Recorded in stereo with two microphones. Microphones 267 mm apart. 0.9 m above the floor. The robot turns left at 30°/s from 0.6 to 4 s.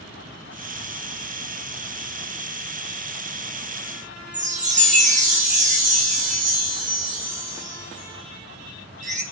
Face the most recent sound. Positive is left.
turn(degrees=-30)  # may be behind; listen again after turning